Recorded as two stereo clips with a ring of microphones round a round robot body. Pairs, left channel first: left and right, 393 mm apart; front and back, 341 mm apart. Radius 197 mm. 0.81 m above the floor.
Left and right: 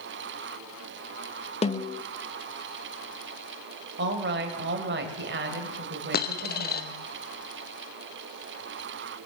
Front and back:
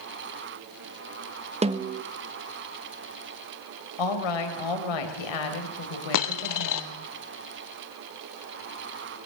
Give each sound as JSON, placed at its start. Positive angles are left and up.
{"t": 1.6, "sound": "a snare drum", "azimuth_deg": 140, "distance_m": 1.0}
{"t": 4.0, "sound": "a woman speaking", "azimuth_deg": -25, "distance_m": 3.5}
{"t": 6.1, "sound": "a dropped coin", "azimuth_deg": 25, "distance_m": 1.6}